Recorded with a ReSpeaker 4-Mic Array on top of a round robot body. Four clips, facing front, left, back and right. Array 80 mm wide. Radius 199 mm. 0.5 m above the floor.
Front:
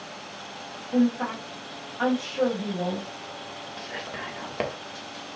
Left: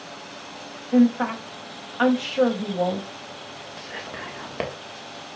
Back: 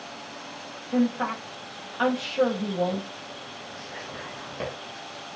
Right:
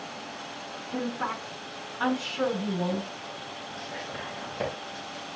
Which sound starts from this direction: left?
A woman speaking, at 0.9 s.